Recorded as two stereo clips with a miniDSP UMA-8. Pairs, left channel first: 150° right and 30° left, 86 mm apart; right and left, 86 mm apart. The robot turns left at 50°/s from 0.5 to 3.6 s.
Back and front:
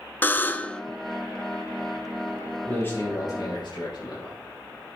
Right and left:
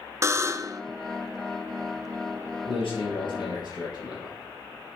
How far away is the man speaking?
About 4.5 m.